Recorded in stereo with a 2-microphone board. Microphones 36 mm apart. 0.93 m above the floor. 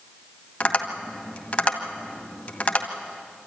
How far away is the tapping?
About 1.9 m.